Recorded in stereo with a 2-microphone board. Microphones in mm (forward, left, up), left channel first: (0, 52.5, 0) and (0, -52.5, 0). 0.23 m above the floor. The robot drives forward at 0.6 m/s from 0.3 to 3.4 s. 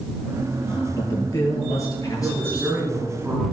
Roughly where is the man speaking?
Left.